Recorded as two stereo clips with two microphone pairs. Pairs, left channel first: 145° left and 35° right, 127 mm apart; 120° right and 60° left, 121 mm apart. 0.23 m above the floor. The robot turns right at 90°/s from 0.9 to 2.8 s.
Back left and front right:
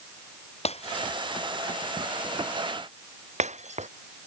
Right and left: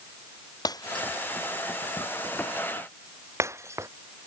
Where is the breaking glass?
Straight behind; by 3.9 s 10° right.